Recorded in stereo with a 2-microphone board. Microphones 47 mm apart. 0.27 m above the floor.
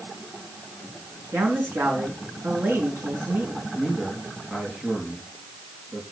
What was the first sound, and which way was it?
A man speaking, 60° right (ahead or behind).